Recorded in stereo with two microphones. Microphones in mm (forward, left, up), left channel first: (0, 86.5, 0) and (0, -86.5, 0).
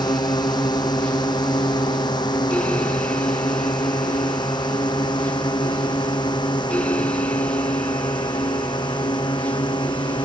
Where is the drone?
25° left (ahead or behind).